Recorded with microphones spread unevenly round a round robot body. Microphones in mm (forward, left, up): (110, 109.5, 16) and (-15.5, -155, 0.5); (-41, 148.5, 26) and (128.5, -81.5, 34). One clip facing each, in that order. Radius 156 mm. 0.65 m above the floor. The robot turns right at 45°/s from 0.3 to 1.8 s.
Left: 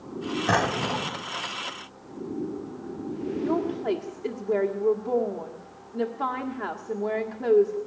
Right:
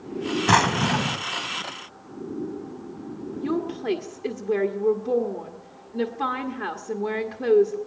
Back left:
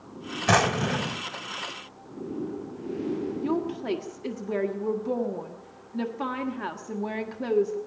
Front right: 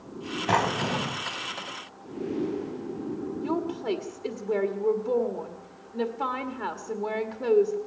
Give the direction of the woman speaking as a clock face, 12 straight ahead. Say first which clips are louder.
Right 1 dB, front right 1 dB; 6 o'clock.